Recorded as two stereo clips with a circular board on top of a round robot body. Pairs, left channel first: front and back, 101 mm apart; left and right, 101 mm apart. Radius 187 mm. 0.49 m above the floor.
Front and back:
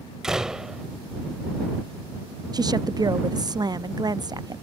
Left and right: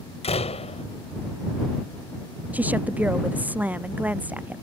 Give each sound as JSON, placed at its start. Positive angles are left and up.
{"t": 0.2, "sound": "a door slam", "azimuth_deg": 95}
{"t": 2.5, "sound": "a woman speaking", "azimuth_deg": -160}